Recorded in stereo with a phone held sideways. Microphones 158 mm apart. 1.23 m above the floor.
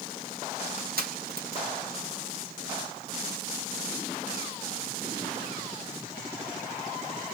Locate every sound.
0.8 s crushing: 75° right (ahead or behind), 2 m